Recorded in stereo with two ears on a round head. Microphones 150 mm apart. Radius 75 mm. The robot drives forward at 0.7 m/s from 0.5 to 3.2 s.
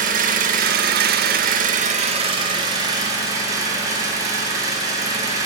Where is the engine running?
50° right (ahead or behind), 0.8 m; by 5.5 s 20° right (ahead or behind), 1.7 m.